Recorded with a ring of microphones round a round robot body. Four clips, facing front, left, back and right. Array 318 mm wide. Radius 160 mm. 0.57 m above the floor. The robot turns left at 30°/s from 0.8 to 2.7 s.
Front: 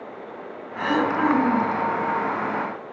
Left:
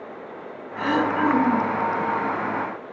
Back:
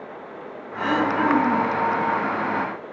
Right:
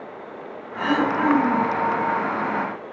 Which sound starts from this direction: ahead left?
Throat clearing, at 0.8 s.